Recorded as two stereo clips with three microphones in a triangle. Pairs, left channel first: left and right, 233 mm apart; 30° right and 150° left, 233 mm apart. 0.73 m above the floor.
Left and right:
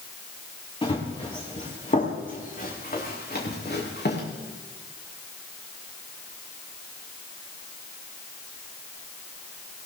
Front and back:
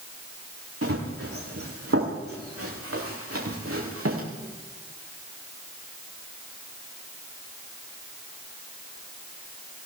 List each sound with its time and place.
0.8 s running footsteps: 160° left, 5 m; by 4.2 s 130° left, 4.5 m